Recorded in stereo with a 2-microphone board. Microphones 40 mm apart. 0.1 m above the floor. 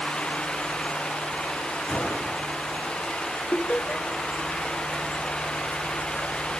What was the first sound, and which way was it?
A gunshot, 25° left (ahead or behind).